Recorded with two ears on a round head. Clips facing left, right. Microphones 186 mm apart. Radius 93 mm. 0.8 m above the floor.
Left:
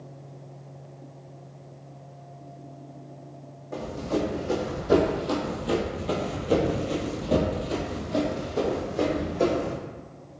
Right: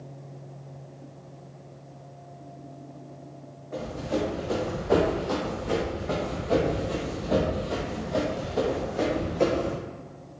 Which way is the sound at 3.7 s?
35° left (ahead or behind).